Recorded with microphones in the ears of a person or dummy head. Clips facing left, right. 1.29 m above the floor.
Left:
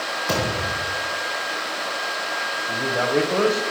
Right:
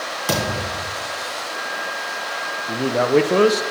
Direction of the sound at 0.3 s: 45° right (ahead or behind).